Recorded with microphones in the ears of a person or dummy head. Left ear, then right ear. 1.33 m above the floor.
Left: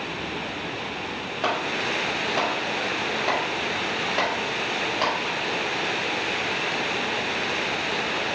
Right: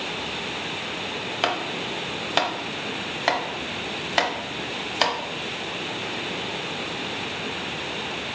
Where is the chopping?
45° right (ahead or behind), 0.6 m.